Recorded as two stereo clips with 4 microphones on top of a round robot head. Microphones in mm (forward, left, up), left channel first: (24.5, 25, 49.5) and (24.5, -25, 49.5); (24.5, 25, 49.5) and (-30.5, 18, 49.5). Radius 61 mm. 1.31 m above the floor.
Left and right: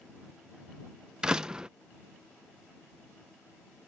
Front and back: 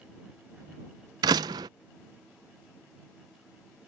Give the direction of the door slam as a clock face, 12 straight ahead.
6 o'clock.